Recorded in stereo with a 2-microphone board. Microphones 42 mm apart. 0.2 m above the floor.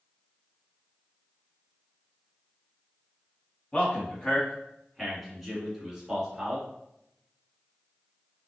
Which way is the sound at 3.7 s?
30° left (ahead or behind).